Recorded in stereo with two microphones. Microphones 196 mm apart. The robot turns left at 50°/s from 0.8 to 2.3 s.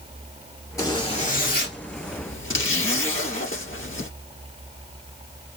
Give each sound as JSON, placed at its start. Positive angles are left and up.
{"t": 0.8, "sound": "a zipper", "azimuth_deg": 165, "distance_m": 1.8}